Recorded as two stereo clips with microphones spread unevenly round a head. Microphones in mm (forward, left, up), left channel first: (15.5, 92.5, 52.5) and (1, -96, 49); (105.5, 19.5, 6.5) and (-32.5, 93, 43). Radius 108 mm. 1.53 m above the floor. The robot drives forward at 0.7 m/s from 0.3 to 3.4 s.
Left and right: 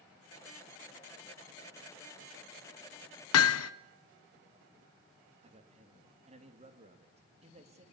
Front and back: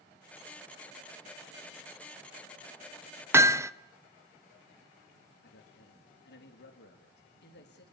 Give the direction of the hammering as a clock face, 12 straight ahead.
9 o'clock.